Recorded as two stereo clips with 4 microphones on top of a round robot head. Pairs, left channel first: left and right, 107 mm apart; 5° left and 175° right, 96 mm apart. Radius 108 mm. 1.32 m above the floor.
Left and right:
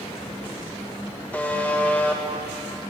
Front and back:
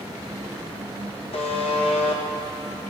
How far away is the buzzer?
About 1.5 m.